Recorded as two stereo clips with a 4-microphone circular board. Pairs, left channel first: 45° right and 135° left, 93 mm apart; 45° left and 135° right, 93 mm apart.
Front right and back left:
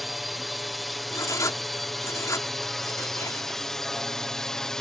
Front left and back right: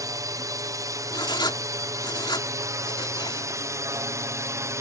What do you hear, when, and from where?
0.0 s a drone: 135° right; by 4.8 s 125° right
1.1 s writing: 5° left